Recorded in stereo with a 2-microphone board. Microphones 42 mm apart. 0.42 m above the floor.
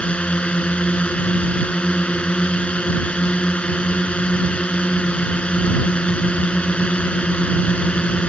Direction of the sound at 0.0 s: 30° left (ahead or behind).